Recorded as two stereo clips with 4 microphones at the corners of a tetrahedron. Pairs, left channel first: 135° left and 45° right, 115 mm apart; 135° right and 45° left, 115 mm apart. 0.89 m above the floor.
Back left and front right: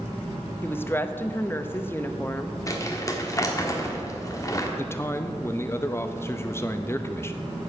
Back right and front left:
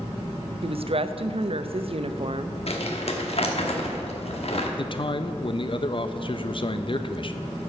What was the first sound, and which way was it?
A woman speaking, 70° left.